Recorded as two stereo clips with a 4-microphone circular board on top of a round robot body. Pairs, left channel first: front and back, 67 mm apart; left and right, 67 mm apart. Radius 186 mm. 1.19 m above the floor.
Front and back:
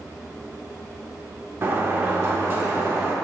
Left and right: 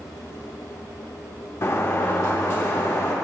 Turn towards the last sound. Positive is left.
turn(degrees=130)